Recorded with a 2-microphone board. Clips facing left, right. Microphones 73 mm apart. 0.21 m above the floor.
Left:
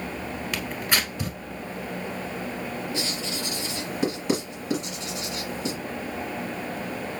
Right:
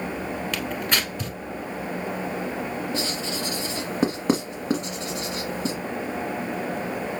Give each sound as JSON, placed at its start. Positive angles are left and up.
{"t": 0.5, "sound": "tearing paper", "side_deg": 5, "distance_m": 1.1}
{"t": 2.9, "sound": "writing", "side_deg": -45, "distance_m": 1.4}